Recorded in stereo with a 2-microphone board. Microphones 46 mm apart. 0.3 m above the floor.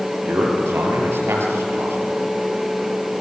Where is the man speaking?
80° right, 5.5 m.